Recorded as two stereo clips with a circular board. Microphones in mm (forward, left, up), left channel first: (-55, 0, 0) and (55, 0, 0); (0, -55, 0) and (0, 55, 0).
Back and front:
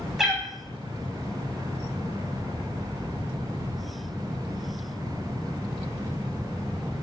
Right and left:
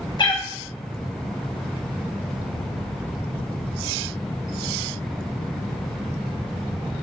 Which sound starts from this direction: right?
A cat meowing, at 0.2 s.